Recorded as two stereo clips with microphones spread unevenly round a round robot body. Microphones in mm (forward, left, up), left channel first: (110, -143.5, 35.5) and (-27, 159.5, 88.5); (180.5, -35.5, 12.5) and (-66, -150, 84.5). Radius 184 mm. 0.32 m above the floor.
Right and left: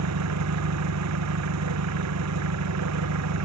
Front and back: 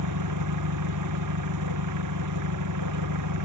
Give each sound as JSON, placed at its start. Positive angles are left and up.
{"t": 0.0, "sound": "an engine running", "azimuth_deg": 160}